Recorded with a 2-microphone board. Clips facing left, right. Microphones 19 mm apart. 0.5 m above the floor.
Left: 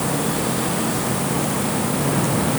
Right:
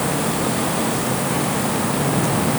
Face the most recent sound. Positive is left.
No sound to turn to.